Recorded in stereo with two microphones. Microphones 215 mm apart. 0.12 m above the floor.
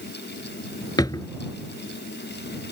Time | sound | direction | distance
1.0 | a drawer | 20° left (ahead or behind) | ?